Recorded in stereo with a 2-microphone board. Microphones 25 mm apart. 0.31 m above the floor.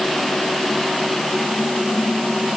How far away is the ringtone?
I don't hear a ringtone.